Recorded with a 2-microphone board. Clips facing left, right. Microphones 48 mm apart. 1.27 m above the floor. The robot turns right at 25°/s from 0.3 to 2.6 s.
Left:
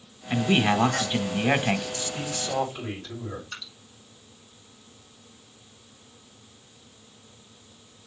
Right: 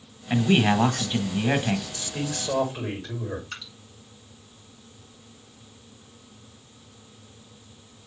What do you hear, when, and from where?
0.3 s a man speaking: 15° right, 1.2 m; by 1.9 s 25° left, 1.2 m
1.9 s a man speaking: 75° right (ahead or behind), 6.5 m; by 3.4 s 85° right, 6.5 m
3.5 s dripping: 80° right, 5 m